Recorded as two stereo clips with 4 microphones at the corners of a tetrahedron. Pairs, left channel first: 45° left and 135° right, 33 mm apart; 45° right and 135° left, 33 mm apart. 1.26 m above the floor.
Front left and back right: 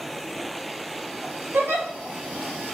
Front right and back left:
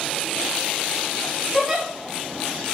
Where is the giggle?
150° right, 3 m.